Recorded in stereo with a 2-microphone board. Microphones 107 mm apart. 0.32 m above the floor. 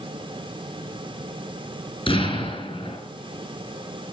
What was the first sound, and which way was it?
An explosion, 55° left (ahead or behind).